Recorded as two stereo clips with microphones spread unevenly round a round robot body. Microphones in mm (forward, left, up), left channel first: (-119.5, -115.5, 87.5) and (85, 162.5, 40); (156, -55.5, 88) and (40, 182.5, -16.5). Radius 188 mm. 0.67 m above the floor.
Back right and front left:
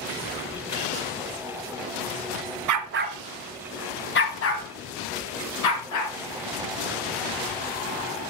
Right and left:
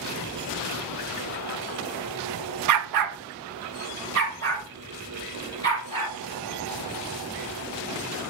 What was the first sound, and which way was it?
A dog barking, 90° left.